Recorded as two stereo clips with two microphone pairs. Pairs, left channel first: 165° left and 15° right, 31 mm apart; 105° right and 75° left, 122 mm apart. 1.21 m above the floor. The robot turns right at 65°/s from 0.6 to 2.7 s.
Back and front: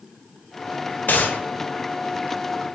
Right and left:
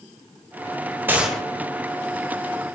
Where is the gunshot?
150° left, 0.9 m; by 1.4 s 170° left, 0.9 m.